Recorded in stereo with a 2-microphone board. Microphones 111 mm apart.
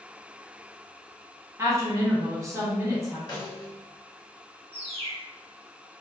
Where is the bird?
65° right (ahead or behind), 0.8 m.